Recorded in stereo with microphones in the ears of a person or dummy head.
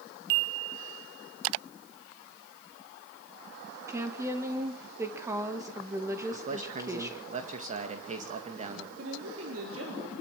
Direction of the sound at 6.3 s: 45° right (ahead or behind).